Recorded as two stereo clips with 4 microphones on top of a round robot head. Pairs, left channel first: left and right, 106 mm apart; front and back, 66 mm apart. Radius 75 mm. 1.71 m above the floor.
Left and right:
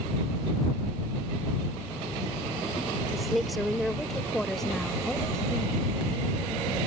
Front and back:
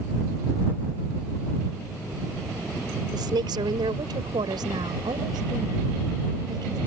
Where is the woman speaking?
Straight behind; by 6.8 s 170° left.